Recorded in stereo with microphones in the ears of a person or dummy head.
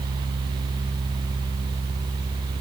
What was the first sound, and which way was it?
Only background noise.